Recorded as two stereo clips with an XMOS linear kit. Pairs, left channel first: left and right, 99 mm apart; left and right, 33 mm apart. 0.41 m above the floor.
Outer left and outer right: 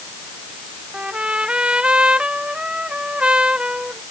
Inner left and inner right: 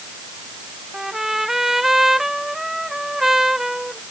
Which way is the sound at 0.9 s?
10° right (ahead or behind).